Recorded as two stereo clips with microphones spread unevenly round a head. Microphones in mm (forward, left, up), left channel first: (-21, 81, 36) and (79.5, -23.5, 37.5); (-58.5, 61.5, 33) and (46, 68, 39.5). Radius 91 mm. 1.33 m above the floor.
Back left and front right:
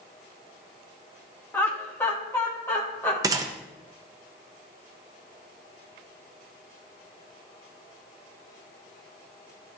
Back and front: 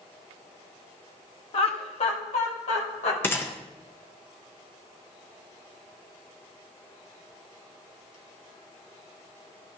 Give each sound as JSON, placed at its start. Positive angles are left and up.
{"t": 1.5, "sound": "laughter", "azimuth_deg": -150, "distance_m": 1.0}
{"t": 3.2, "sound": "a gunshot", "azimuth_deg": -110, "distance_m": 0.6}